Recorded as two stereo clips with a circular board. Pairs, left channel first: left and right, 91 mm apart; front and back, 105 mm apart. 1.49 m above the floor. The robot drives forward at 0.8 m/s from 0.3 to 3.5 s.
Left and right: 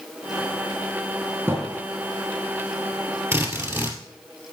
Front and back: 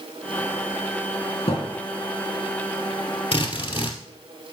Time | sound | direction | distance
1.5 | a thud | 25° right | 6 m
3.3 | a drill | 30° right | 2.5 m